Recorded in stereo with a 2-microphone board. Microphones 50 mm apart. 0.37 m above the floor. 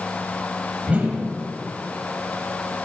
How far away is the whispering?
I don't hear whispering.